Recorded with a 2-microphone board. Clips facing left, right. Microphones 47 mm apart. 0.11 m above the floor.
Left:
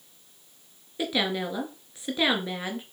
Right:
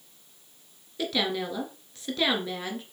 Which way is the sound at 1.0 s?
15° left (ahead or behind).